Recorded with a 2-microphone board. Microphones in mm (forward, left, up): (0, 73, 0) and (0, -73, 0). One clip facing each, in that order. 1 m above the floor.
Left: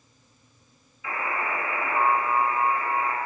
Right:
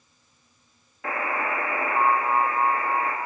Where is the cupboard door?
No cupboard door in this recording.